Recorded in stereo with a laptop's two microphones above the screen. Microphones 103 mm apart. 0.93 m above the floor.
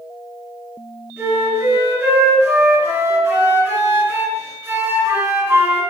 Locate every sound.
1.2 s a flute: 20° right (ahead or behind), 1.8 m